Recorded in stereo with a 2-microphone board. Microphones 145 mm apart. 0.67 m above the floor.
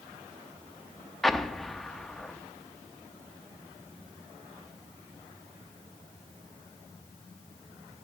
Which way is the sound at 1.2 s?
Centre (ahead or behind).